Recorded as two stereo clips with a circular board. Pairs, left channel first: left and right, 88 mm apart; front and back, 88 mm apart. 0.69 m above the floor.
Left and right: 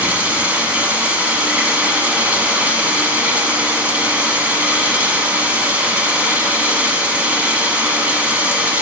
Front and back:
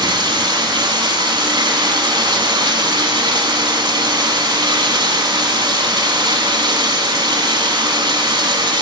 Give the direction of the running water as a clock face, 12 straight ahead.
5 o'clock.